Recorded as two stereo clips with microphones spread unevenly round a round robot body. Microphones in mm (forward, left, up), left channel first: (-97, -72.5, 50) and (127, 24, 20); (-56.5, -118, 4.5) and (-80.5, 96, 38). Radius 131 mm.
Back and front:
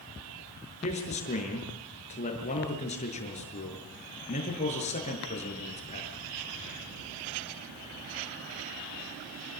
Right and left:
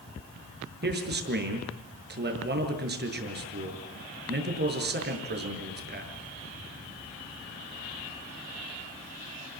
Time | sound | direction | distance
0.8 | a man speaking | 140° left | 7 m